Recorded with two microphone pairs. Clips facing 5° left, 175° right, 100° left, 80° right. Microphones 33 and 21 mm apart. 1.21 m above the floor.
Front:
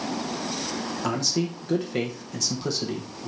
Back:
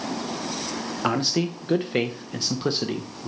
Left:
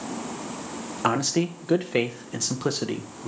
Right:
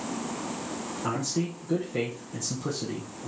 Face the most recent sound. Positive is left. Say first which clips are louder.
# back 4 dB, left 7 dB
turn(degrees=130)